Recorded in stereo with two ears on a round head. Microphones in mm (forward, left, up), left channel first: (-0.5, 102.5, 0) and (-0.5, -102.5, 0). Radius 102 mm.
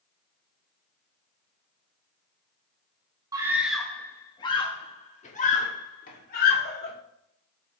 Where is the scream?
15° right (ahead or behind), 0.8 m; by 6.9 s 45° left (ahead or behind), 2.5 m.